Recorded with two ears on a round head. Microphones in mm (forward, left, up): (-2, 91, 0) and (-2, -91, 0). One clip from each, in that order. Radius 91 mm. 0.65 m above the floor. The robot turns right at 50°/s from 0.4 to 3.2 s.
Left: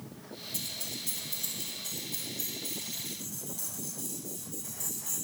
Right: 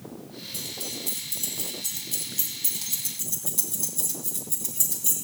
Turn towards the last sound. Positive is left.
turn(degrees=-55)  # may be behind; listen again after turning